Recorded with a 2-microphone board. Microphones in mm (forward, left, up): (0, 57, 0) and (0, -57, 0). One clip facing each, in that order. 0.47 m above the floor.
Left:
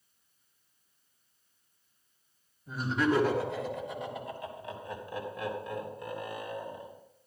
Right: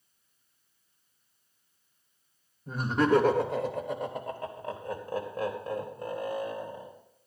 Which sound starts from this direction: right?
Laughter, at 2.7 s.